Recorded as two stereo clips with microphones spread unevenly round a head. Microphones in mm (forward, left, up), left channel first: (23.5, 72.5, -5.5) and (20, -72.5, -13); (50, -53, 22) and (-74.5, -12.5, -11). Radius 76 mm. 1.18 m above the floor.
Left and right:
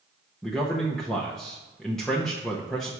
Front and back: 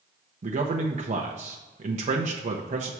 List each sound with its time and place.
0.4 s a man speaking: 175° left, 0.7 m